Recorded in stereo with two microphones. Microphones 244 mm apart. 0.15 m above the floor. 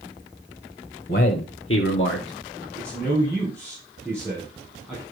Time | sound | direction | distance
1.1 | a man speaking | 55° left (ahead or behind) | 2.5 m
2.8 | a man speaking | 5° left (ahead or behind) | 5 m